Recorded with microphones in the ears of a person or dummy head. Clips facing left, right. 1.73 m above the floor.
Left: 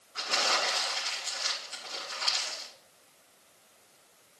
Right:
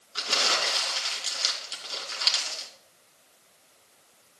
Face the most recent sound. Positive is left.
turn(degrees=-55)  # may be behind; listen again after turning